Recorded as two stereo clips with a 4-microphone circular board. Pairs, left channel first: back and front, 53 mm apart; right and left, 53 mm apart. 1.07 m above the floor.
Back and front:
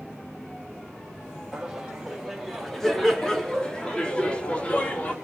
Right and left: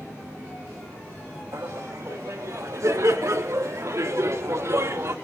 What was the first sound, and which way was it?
Laughter, 80° left.